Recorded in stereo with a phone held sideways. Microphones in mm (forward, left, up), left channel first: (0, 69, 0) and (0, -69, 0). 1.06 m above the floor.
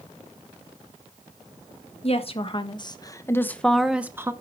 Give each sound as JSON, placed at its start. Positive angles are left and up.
{"t": 2.0, "sound": "a woman speaking", "side_deg": 45, "distance_m": 1.6}